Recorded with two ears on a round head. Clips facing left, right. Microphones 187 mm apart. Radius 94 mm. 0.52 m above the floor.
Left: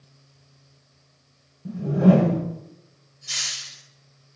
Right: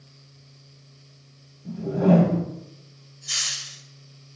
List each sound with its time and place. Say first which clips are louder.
1.6 s a whoosh: left 2 dB; 15° left (ahead or behind), 0.7 m
3.3 s a hiss: even; 5° right (ahead or behind), 0.6 m